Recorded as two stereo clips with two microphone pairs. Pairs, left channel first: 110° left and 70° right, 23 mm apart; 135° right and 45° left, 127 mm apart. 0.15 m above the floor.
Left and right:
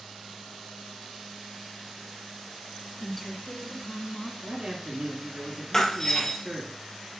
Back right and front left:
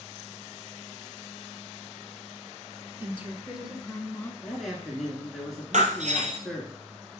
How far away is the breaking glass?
About 1.5 m.